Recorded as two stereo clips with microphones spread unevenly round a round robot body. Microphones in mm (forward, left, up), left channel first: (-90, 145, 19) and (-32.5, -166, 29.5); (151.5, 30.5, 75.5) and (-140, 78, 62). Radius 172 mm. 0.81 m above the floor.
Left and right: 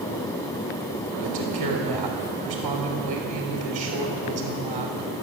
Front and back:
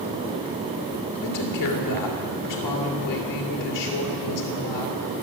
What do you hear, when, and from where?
1.2 s a woman speaking: 10° right, 3 m